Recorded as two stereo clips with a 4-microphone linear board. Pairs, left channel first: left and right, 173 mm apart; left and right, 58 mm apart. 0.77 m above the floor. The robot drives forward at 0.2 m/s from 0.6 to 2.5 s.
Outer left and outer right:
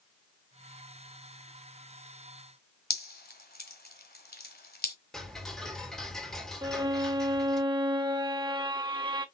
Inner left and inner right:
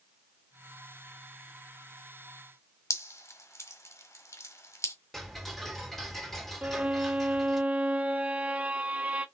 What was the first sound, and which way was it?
Dripping, 75° left (ahead or behind).